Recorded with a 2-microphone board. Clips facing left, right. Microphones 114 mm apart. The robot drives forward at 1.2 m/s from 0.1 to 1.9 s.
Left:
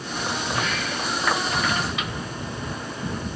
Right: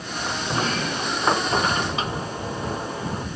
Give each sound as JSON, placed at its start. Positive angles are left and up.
{"t": 0.5, "sound": "a sliding door", "side_deg": -35}